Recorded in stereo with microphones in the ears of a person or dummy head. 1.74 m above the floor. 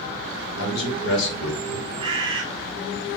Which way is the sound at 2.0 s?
30° right (ahead or behind).